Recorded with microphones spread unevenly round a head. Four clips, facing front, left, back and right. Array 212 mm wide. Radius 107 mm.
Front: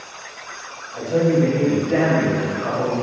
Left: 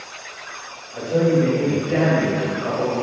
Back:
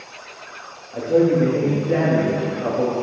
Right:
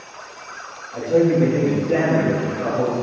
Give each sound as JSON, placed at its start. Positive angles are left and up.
{"t": 0.9, "sound": "a man speaking", "azimuth_deg": -150, "distance_m": 2.0}